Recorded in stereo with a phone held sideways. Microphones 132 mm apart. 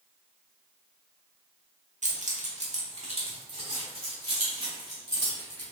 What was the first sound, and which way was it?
Keys jangling, 75° right (ahead or behind).